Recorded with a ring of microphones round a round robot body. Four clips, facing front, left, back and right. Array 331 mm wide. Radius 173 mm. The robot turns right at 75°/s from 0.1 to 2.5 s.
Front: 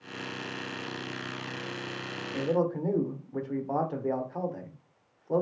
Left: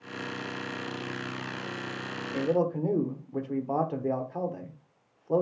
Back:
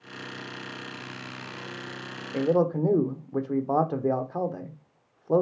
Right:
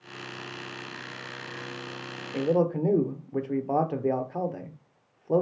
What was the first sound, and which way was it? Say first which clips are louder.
A man speaking: right 2 dB, back 5 dB; 165° right.